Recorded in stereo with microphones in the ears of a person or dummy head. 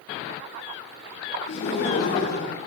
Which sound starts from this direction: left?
Laughter, at 1.5 s.